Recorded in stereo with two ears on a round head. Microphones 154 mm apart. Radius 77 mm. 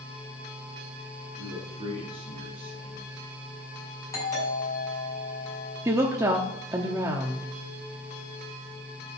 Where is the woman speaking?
20° right (ahead or behind), 1.0 m.